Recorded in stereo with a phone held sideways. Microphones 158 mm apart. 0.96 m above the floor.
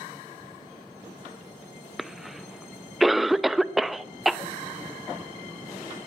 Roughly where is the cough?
Centre.